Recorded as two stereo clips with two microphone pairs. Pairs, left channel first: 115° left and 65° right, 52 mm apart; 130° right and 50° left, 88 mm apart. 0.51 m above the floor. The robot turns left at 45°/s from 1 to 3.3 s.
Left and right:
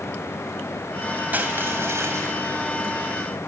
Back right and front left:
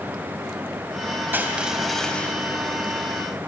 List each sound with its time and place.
1.3 s crushing: 15° right, 2.5 m; by 2.4 s 60° right, 2.5 m